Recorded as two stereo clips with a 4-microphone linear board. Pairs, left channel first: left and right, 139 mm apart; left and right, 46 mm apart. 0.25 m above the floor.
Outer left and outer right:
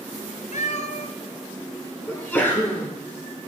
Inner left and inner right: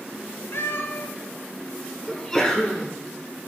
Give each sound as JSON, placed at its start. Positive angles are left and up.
{"t": 0.5, "sound": "a cat meowing", "side_deg": 60, "distance_m": 1.0}
{"t": 2.1, "sound": "a sneeze", "side_deg": 15, "distance_m": 2.0}